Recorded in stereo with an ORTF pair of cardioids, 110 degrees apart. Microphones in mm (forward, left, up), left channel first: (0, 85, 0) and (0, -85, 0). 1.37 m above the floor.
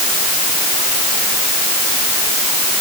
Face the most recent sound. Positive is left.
No sound to turn to.